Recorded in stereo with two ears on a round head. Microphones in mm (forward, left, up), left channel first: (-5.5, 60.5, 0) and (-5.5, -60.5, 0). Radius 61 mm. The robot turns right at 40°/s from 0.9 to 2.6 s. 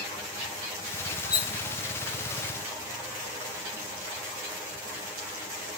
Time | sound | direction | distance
1.3 | cutlery clinking | 25° left (ahead or behind) | 0.7 m